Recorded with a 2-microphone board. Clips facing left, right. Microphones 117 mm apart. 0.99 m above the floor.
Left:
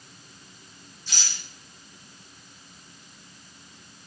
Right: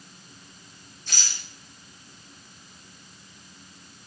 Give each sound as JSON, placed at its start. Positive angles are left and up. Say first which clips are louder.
{"t": 1.1, "sound": "a rattle", "louder": "even", "side_deg": -55, "distance_m": 7.5}